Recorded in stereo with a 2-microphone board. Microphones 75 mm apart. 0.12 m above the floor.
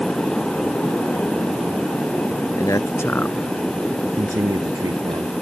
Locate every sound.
2.6 s a man speaking: 50° left (ahead or behind); by 5.3 s 65° right (ahead or behind)